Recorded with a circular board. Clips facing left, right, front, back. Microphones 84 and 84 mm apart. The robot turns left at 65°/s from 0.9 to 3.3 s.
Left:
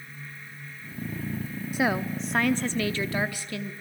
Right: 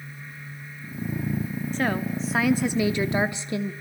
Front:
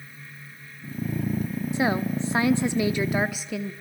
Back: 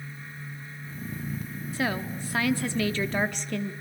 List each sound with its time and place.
1.7 s a woman speaking: 30° left, 0.6 m; by 3.7 s 70° right, 0.6 m